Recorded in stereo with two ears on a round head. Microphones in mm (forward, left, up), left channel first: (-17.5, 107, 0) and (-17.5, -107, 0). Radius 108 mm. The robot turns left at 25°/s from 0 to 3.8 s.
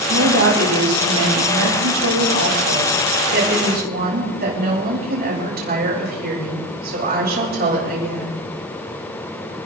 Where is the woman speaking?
45° right, 8 m; by 8.4 s 135° right, 8 m.